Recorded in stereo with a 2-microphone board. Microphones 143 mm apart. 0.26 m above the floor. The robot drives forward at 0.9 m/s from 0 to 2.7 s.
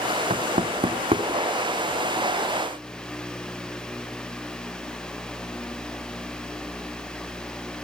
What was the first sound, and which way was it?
Knocking, 55° right (ahead or behind).